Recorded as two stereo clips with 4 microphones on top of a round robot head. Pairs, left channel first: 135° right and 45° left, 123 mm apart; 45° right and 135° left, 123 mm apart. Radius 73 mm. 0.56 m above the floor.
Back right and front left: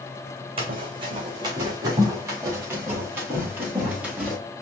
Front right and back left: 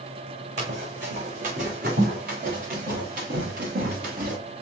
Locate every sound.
0.6 s running footsteps: 95° left, 2.5 m; by 4.4 s 130° left, 4.5 m